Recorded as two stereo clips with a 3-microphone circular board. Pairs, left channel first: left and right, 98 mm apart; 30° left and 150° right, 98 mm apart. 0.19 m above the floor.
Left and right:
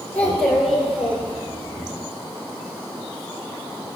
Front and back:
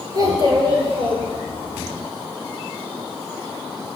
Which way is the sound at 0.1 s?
165° left.